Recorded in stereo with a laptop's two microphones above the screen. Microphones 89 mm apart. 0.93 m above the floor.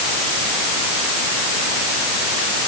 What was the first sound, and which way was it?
Only background noise.